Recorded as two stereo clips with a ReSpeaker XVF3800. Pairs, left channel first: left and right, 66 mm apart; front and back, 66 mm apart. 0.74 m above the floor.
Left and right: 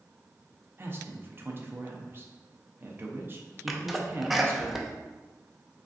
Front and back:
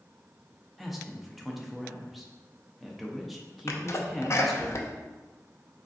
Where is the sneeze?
5° right, 0.5 m.